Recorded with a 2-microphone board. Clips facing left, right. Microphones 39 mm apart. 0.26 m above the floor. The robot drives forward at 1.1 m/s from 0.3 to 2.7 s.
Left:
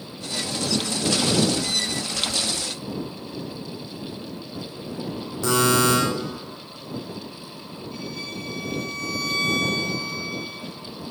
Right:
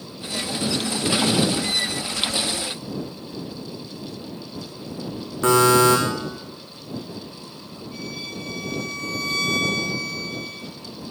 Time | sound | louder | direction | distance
5.4 | a buzzer | right 5 dB | 40° right (ahead or behind) | 4.5 m
7.9 | a violin | right 1 dB | 5° right (ahead or behind) | 9.5 m